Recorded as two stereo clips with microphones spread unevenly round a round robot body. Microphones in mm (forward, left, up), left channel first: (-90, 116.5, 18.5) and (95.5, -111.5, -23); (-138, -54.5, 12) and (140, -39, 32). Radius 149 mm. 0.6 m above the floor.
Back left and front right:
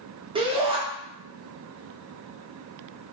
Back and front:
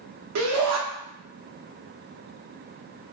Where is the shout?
10° left, 0.9 m.